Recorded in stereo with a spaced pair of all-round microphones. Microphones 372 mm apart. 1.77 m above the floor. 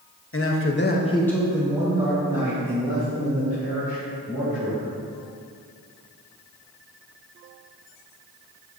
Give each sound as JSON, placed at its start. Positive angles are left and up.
{"t": 0.3, "sound": "a man speaking", "side_deg": 35, "distance_m": 1.0}